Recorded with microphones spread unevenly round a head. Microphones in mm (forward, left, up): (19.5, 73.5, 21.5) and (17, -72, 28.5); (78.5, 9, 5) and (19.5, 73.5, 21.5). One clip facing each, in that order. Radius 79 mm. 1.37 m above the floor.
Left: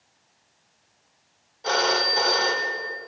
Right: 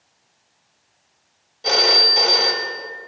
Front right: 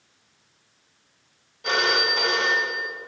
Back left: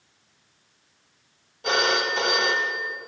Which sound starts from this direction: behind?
A phone ringing, at 1.6 s.